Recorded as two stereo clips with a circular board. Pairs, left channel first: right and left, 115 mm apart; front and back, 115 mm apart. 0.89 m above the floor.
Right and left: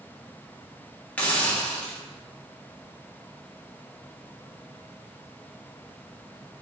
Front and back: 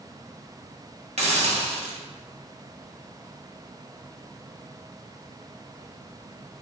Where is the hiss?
165° right, 1.3 m.